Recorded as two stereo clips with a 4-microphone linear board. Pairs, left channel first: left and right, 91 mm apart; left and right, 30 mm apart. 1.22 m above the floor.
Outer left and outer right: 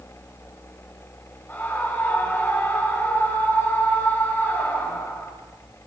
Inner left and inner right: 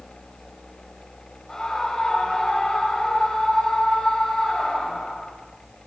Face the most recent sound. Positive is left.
turn(degrees=20)  # may be behind; listen again after turning